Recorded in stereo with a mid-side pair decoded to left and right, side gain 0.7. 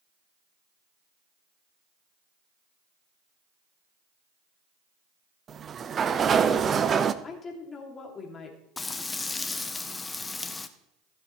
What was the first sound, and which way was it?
A sliding door, 30° right.